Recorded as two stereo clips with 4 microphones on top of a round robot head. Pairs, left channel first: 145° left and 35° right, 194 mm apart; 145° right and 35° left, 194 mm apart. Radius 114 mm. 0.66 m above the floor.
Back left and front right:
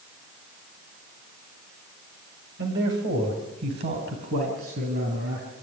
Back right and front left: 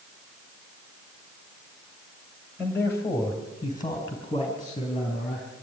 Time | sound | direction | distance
2.6 | a man speaking | 65° right | 3.5 m